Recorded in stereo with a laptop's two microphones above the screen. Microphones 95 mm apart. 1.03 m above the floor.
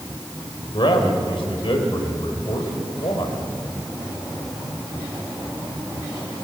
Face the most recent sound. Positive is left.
turn(degrees=65)  # may be behind; listen again after turning